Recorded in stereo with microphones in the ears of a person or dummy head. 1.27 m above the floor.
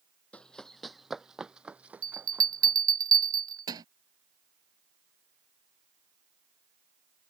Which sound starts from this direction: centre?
Running footsteps, at 0.3 s.